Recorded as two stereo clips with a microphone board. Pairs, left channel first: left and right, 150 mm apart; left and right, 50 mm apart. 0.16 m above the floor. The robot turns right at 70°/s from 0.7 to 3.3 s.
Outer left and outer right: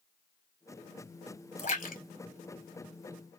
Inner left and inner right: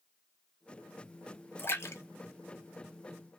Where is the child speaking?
I don't hear a child speaking.